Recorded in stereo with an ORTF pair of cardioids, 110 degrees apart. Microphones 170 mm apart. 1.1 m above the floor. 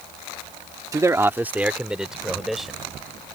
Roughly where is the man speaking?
Ahead.